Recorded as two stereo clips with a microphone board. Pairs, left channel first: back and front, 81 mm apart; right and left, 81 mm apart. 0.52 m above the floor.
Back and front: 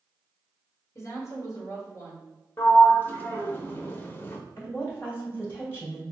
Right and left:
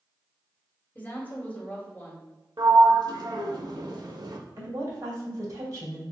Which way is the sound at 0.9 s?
150° right.